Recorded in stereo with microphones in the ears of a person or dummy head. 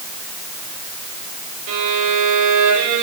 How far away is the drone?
No drone in this recording.